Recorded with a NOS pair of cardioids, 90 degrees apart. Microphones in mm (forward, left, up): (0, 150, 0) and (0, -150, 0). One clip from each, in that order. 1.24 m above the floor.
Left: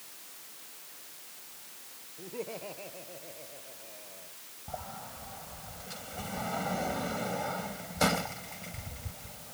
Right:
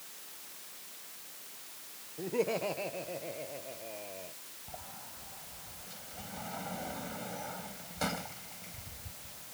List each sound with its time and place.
2.2 s laughter: 55° right
4.7 s a sliding door: 55° left